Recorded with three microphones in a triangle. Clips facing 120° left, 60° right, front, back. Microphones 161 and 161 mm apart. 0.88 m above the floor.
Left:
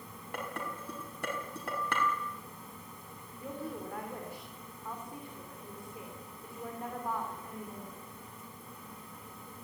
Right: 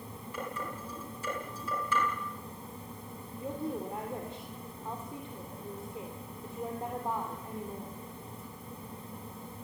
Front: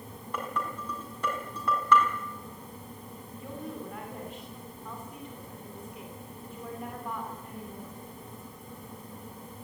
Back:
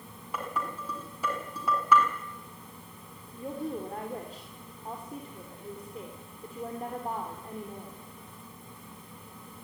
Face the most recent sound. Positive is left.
turn(degrees=-125)